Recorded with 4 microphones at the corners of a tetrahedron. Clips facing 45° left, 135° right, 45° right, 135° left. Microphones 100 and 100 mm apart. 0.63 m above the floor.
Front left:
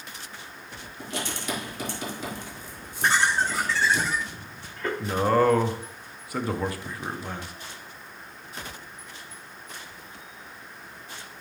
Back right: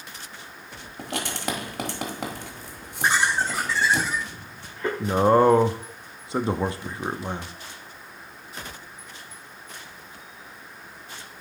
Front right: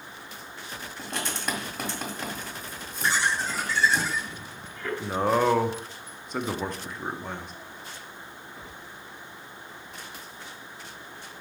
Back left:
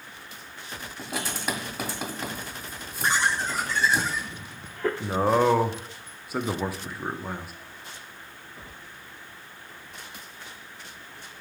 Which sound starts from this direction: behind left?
Laughter, at 3.0 s.